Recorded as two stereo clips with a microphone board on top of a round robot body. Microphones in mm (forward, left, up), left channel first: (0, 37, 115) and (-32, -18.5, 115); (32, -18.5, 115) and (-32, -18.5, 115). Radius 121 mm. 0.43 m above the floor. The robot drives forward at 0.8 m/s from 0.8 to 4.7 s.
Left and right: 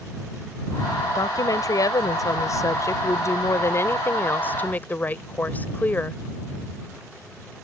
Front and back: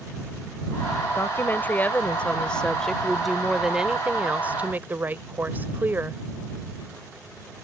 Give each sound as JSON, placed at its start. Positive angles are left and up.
{"t": 1.1, "sound": "a woman speaking", "azimuth_deg": 50}